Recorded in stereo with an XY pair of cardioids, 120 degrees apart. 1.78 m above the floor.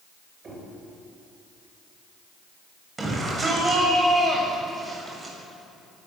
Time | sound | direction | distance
0.4 | knocking | 35° right | 8 m
3.0 | a shout | 25° right | 8 m